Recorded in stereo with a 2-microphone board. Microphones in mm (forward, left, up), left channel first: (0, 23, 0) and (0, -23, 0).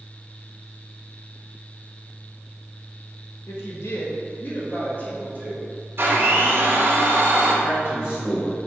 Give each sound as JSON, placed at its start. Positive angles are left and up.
{"t": 3.5, "sound": "a woman speaking", "side_deg": 70, "distance_m": 1.4}
{"t": 6.0, "sound": "a blender", "side_deg": -60, "distance_m": 2.0}
{"t": 7.6, "sound": "a man speaking", "side_deg": 55, "distance_m": 1.1}